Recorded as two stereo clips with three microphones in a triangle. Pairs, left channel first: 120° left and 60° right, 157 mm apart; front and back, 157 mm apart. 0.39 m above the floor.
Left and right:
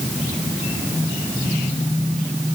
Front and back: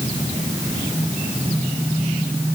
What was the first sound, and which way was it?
Only background noise.